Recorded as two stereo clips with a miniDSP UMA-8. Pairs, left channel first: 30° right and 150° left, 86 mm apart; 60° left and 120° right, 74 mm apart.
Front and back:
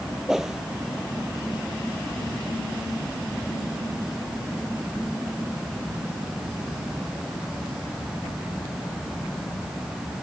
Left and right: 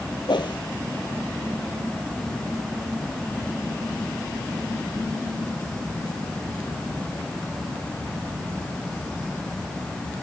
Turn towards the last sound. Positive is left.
turn(degrees=65)